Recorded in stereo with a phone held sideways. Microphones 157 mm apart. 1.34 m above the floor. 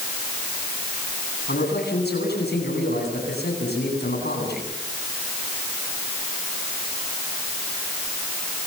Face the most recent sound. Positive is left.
turn(degrees=90)